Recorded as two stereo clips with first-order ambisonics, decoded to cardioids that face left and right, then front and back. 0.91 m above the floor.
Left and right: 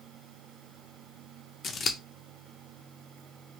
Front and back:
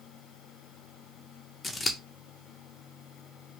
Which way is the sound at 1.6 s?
65° left.